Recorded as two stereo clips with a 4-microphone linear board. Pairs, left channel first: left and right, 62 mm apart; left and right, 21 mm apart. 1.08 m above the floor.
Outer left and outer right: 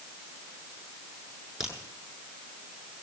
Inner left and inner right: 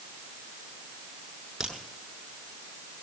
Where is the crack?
10° right (ahead or behind), 7.5 m.